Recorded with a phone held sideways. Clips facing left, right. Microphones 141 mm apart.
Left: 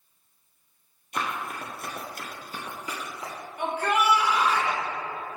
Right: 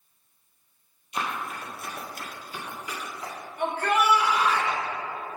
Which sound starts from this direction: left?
Running footsteps, at 1.1 s.